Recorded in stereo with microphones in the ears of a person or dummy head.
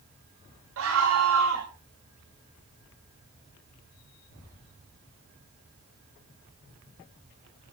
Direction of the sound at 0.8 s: 80° right.